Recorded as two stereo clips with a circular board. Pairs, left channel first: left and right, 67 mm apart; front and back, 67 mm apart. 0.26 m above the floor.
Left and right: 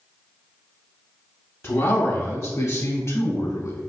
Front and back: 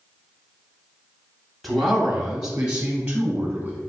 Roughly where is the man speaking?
Left.